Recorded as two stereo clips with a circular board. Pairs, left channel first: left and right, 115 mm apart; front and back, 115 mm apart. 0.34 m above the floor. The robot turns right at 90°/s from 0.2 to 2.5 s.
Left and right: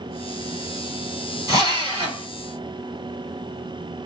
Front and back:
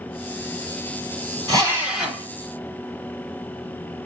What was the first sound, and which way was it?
A drill, 140° right.